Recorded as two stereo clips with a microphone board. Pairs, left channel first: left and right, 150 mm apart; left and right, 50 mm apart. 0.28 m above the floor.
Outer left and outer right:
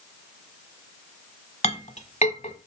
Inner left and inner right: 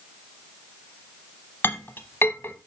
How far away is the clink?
About 0.9 m.